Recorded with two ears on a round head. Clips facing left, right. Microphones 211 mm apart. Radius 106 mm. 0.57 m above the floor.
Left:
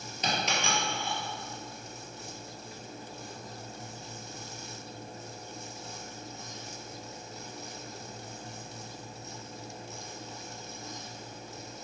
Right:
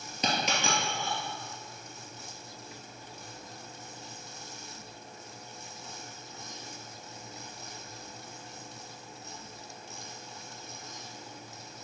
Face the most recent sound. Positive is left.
turn(degrees=-75)  # may be behind; listen again after turning